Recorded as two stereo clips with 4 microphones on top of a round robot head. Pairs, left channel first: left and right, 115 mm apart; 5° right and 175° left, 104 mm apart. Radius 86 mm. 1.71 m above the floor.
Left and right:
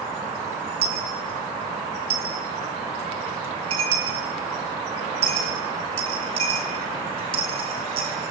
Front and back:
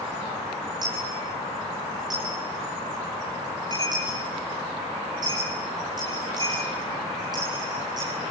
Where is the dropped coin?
120° right, 4 m.